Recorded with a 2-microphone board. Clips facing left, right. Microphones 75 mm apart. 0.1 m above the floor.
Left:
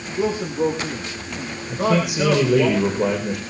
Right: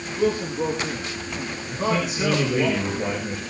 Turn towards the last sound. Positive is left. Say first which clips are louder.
# left 5 dB
turn(degrees=65)  # may be behind; listen again after turning